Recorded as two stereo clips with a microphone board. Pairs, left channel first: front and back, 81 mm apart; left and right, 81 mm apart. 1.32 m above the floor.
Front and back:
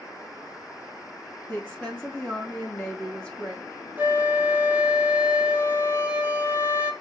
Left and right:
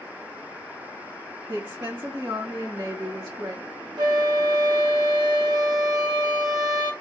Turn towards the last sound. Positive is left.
turn(degrees=-115)